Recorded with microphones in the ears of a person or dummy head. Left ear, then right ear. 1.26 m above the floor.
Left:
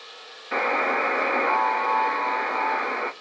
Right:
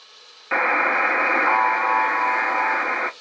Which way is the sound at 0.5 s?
40° right (ahead or behind).